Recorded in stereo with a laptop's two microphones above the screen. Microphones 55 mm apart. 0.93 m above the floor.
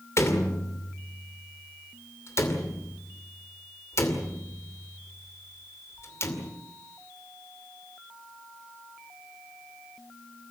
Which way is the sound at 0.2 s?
50° left (ahead or behind).